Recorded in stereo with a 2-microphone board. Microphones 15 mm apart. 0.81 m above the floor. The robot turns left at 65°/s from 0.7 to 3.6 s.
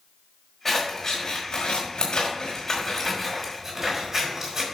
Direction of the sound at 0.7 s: 5° left (ahead or behind).